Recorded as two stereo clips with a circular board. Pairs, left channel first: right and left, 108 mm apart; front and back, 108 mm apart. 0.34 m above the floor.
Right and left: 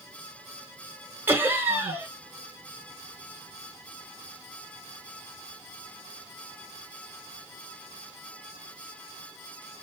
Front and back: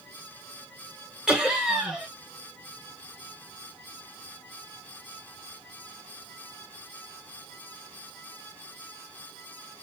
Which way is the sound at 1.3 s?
105° left.